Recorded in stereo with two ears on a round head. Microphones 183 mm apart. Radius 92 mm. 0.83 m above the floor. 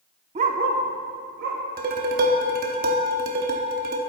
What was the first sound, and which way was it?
A dog barking, 30° right (ahead or behind).